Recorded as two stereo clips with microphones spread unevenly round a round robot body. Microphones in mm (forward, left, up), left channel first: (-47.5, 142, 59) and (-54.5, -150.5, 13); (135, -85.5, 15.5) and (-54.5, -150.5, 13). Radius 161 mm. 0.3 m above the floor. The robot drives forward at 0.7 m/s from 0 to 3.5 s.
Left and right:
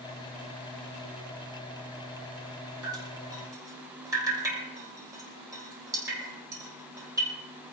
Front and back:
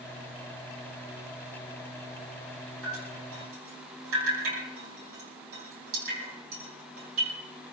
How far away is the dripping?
About 5.5 m.